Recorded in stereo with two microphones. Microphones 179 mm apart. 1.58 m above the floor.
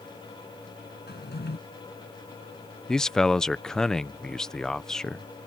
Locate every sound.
1.1 s a drawer: 70° left (ahead or behind)
2.9 s a man speaking: 5° left (ahead or behind)